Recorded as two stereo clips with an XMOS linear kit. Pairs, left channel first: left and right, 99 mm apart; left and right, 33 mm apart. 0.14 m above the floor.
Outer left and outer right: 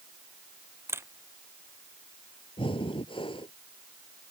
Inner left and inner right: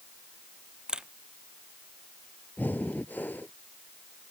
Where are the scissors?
I don't hear scissors.